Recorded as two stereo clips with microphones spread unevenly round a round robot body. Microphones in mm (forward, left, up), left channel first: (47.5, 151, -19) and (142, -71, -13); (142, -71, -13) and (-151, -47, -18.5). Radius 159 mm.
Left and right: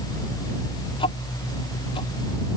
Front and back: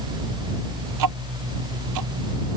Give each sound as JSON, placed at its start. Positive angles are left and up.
{"t": 0.9, "sound": "ticking", "azimuth_deg": -170}